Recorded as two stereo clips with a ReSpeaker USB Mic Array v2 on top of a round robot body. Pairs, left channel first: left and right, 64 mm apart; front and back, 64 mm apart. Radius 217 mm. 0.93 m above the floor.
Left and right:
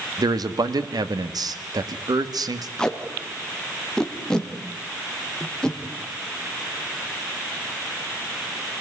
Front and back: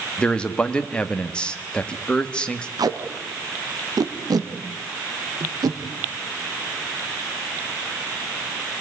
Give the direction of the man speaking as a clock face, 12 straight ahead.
2 o'clock.